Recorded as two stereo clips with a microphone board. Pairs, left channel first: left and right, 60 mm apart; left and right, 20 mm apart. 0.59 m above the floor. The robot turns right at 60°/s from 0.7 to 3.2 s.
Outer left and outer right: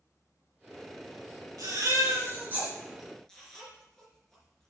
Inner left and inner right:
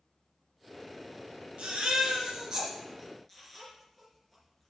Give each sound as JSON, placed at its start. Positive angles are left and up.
{"t": 1.6, "sound": "a baby crying", "side_deg": -85, "distance_m": 4.5}